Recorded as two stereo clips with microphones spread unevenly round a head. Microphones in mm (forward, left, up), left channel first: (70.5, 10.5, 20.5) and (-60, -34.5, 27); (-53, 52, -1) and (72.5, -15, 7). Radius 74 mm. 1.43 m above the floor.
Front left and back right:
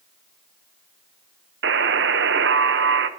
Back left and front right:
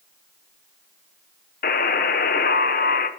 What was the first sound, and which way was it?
A buzzer, 170° right.